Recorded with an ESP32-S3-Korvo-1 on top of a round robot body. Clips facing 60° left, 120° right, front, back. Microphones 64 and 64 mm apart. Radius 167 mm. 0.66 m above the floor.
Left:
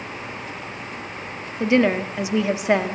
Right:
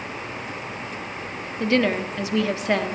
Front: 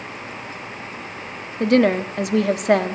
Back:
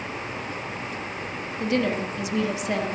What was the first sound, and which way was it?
A woman speaking, 10° right.